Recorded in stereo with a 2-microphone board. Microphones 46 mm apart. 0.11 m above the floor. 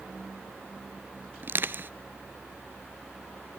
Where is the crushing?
45° right (ahead or behind), 0.6 m.